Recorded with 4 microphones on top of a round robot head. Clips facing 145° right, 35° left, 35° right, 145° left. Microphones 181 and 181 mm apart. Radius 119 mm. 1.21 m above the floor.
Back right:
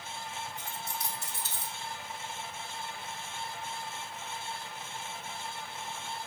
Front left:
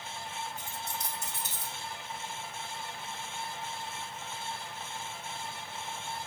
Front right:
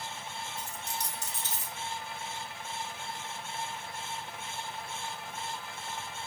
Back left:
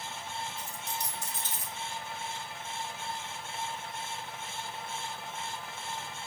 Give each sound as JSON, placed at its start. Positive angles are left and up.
{"t": 0.6, "sound": "a dropped coin", "azimuth_deg": -10, "distance_m": 2.0}